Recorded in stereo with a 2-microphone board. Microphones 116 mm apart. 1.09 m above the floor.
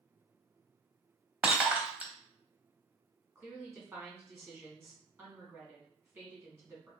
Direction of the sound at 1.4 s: 10° right (ahead or behind).